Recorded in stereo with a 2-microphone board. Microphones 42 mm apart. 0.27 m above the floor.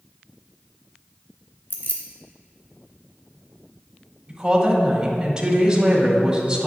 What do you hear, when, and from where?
1.7 s keys jangling: 60° left (ahead or behind), 1.5 m
4.3 s a woman speaking: 15° right (ahead or behind), 1.6 m